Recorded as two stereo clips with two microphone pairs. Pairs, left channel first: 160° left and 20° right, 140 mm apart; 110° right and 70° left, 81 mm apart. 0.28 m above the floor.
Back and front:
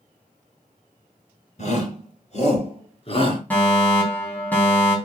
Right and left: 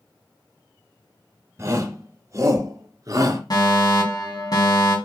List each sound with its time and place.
1.6 s a shout: 125° left, 4 m; by 3.4 s 110° left, 3.5 m
3.5 s a fire alarm: 125° right, 3.5 m